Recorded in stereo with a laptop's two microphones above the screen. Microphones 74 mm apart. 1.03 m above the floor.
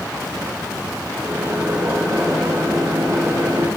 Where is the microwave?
20° right (ahead or behind), 3.5 m.